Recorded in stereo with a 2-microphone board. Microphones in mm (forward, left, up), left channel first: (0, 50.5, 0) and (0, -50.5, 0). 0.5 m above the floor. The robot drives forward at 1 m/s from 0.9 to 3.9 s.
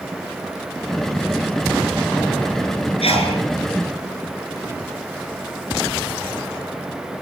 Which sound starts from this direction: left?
A sneeze, at 3.0 s.